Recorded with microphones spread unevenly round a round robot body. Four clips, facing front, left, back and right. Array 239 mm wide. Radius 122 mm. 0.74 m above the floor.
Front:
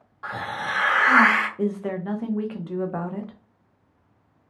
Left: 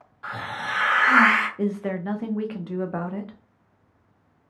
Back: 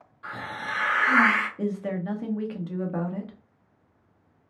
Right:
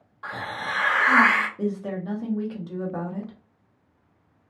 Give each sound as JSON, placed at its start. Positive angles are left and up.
{"t": 0.2, "sound": "a hiss", "azimuth_deg": -20, "distance_m": 1.5}
{"t": 1.6, "sound": "a woman speaking", "azimuth_deg": 40, "distance_m": 0.7}